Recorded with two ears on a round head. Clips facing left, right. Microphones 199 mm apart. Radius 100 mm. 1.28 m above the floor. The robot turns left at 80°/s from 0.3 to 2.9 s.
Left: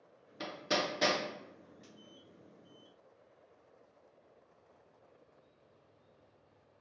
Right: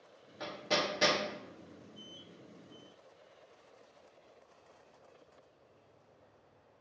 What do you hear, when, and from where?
0.4 s hammering: 40° left (ahead or behind), 0.7 m; by 1.2 s 20° right (ahead or behind), 0.7 m